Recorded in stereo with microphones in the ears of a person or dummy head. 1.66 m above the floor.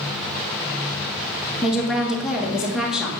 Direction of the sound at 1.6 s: 5° right (ahead or behind).